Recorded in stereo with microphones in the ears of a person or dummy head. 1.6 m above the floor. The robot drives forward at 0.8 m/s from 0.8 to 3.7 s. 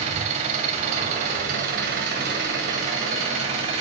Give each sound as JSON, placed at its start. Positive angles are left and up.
{"t": 0.0, "sound": "an engine running", "side_deg": -45, "distance_m": 2.0}